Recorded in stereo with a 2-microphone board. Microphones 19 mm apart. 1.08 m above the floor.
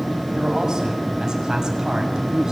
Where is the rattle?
I don't hear a rattle.